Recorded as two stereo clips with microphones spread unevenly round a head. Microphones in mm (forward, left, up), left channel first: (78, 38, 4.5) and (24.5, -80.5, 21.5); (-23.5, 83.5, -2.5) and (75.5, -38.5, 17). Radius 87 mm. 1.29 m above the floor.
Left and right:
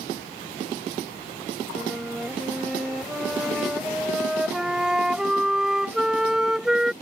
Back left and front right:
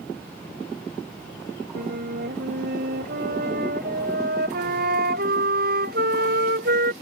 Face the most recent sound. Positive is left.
turn(degrees=-30)